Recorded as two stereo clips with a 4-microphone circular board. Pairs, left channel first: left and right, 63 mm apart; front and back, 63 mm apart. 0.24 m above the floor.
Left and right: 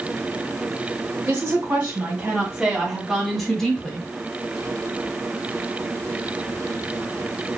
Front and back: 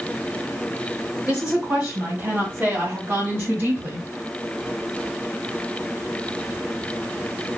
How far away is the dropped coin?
No dropped coin in this recording.